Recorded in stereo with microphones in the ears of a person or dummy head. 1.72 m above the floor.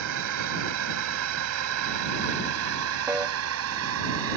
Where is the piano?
10° right (ahead or behind).